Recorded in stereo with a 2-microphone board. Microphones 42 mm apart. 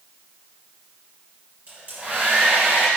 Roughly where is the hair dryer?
Right.